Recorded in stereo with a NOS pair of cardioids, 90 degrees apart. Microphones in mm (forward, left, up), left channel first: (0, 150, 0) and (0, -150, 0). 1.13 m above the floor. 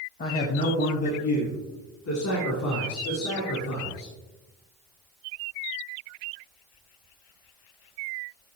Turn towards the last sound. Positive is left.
turn(degrees=70)